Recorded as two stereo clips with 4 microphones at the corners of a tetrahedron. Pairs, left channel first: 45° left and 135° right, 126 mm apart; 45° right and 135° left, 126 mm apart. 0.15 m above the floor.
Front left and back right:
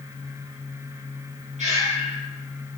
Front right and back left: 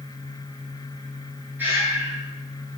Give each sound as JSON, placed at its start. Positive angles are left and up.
{"t": 1.6, "sound": "breathing", "azimuth_deg": -150, "distance_m": 4.0}